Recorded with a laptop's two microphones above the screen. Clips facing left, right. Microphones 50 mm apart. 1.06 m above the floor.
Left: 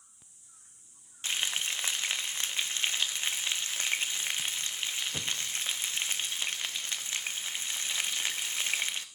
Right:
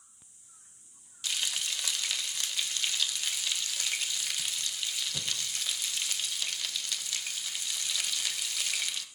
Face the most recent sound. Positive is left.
turn(degrees=30)  # may be behind; listen again after turning